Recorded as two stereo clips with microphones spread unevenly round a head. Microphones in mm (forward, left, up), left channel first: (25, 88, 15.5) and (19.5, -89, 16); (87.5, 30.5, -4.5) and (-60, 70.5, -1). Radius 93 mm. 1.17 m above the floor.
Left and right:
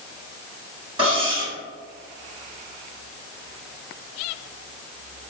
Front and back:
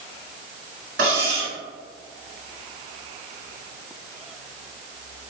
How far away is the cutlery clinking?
About 1.5 m.